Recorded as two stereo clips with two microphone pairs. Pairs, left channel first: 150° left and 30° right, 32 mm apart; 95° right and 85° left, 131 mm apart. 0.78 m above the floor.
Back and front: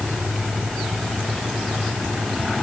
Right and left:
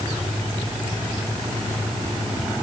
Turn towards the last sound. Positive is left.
No sound to turn to.